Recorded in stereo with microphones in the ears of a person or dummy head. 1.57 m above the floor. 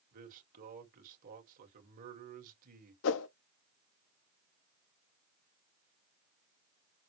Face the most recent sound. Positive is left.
turn(degrees=75)  # may be behind; listen again after turning